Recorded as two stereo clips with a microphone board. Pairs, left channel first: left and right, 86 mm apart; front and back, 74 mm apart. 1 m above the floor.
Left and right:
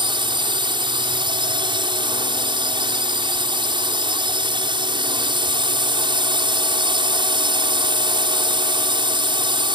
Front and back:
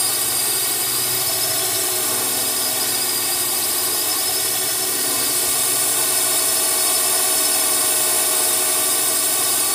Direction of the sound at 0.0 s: 90° right.